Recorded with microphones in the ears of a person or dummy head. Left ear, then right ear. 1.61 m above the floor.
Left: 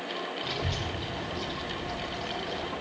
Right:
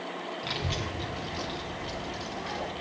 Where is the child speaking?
5° right (ahead or behind), 0.8 m; by 2.7 s 45° right (ahead or behind), 1.8 m.